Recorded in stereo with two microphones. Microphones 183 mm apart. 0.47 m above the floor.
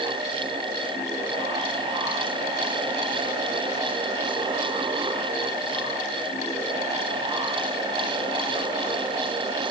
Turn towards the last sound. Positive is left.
No sound to turn to.